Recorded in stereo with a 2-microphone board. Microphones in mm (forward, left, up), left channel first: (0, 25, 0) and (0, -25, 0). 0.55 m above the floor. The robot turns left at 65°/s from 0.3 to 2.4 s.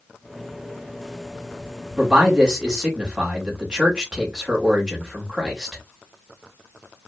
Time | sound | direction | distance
2.0 | a man speaking | 25° right (ahead or behind) | 1.1 m